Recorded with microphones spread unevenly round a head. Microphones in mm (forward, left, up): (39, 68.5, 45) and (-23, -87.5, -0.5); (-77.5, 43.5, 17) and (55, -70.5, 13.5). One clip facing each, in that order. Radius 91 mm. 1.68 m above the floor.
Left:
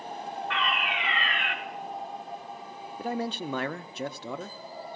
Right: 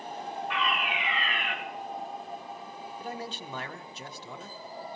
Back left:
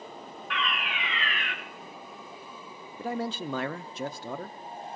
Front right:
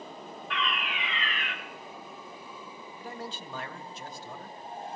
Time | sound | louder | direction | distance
0.5 | a fire alarm | even, even | 175° left | 3 m
3.0 | a man speaking | left 9 dB, back left 10 dB | 100° left | 0.7 m